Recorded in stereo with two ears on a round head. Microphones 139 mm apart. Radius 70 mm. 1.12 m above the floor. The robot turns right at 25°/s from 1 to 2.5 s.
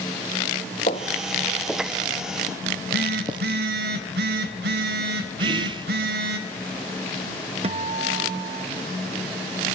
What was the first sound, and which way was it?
Footsteps, 40° left (ahead or behind).